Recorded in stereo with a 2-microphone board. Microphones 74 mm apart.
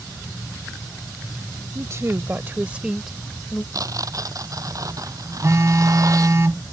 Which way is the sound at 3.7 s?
50° right (ahead or behind).